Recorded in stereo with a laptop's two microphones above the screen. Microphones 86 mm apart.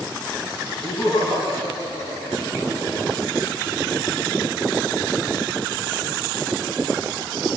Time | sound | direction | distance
0.8 | laughter | 85° left | 9.5 m